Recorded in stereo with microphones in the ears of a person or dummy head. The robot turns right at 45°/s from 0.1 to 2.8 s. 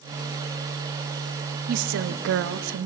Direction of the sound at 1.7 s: 130° right.